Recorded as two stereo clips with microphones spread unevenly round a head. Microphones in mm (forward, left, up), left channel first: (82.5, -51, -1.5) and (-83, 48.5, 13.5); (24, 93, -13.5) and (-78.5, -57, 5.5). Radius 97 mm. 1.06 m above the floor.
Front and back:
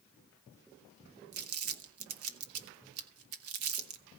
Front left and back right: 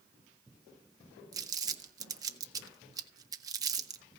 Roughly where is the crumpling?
Behind.